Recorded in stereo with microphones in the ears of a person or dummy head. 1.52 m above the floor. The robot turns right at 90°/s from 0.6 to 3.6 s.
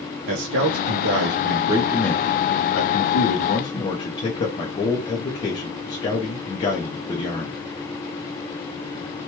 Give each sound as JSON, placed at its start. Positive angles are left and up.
{"t": 0.3, "sound": "a man speaking", "azimuth_deg": -115, "distance_m": 0.5}